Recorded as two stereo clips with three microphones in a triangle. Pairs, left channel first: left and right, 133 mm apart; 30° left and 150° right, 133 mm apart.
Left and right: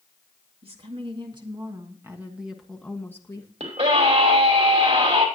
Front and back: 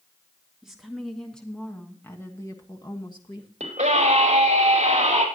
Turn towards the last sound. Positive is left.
turn(degrees=-120)